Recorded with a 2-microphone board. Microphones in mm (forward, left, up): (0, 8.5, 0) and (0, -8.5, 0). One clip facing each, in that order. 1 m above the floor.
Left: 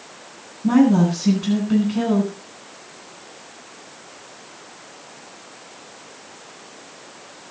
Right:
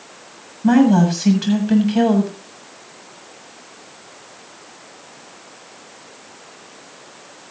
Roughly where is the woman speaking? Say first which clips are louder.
Right 2 dB; right.